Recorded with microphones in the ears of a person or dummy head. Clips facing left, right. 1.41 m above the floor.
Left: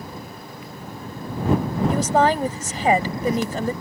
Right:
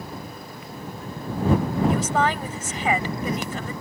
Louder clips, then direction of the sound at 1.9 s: Left 4 dB; 40° left (ahead or behind).